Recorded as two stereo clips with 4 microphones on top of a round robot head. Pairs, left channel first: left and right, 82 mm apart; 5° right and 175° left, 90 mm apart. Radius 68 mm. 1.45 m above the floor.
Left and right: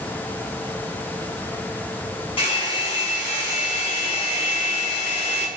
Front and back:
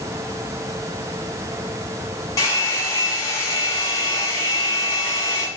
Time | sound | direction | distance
2.4 | a hair dryer | 50° left | 7 m